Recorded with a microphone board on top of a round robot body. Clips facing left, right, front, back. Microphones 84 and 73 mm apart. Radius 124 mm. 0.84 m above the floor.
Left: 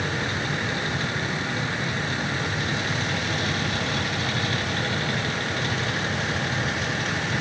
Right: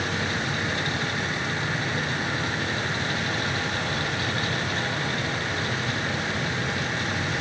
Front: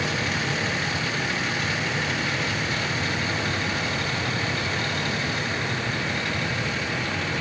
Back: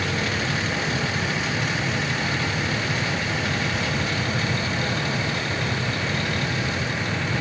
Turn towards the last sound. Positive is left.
No sound to turn to.